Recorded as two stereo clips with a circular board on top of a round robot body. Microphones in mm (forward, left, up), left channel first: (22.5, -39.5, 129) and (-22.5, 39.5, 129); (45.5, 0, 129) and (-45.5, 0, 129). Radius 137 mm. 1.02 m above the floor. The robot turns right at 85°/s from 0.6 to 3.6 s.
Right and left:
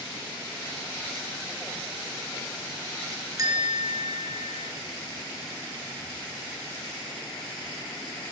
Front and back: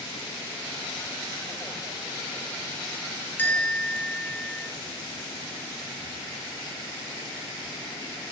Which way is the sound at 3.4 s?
70° left.